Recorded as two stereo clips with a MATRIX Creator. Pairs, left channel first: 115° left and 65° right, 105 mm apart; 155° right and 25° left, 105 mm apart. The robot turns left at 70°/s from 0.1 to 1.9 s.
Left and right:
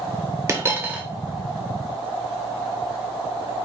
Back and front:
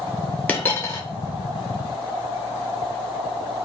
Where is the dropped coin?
95° right, 0.6 m; by 1.0 s 135° right, 0.6 m.